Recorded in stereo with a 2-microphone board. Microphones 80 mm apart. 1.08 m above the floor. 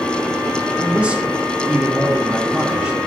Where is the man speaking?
15° right (ahead or behind), 1.8 m.